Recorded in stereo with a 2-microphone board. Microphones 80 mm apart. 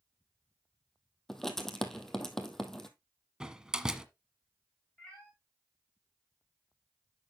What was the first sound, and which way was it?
Writing, 5° left (ahead or behind).